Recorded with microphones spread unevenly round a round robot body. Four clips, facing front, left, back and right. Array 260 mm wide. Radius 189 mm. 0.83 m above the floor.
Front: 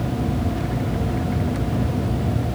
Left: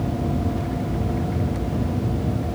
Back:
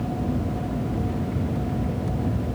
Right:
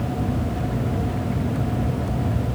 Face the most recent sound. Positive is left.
No sound to turn to.